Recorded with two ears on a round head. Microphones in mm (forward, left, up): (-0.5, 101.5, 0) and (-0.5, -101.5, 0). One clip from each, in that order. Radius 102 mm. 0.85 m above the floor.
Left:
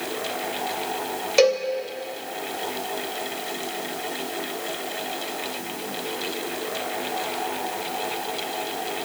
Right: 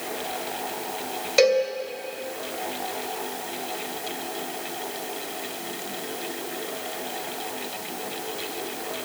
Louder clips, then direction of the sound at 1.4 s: Even; 5° left (ahead or behind).